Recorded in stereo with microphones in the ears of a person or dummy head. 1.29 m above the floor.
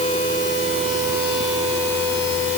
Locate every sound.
Only background noise.